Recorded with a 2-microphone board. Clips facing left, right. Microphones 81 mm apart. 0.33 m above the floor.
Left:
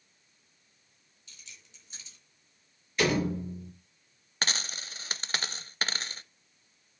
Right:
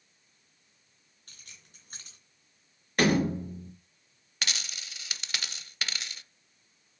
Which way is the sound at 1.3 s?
50° right (ahead or behind).